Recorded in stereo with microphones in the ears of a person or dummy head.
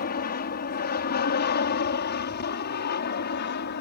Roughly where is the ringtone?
I don't hear a ringtone.